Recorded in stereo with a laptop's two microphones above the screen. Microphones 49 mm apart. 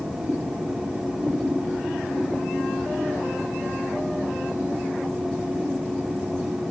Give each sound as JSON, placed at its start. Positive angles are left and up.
{"t": 0.0, "sound": "a fan", "side_deg": -20, "distance_m": 0.9}